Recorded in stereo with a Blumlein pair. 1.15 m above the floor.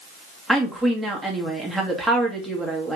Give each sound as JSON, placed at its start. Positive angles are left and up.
{"t": 0.5, "sound": "a woman speaking", "azimuth_deg": 0, "distance_m": 1.4}